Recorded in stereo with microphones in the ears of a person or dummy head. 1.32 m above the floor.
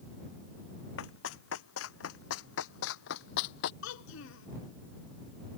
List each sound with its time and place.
1.0 s running footsteps: 75° left (ahead or behind); by 3.7 s 60° left (ahead or behind)
3.8 s a child speaking: 75° left (ahead or behind)